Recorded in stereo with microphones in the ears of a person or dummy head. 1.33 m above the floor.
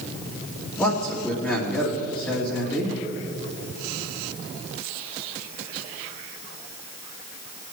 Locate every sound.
0.8 s a man speaking: 5° left (ahead or behind), 2.5 m